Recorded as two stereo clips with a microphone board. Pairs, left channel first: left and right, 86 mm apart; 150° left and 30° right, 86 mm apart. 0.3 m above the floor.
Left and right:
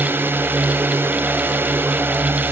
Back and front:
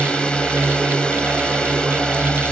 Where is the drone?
140° right.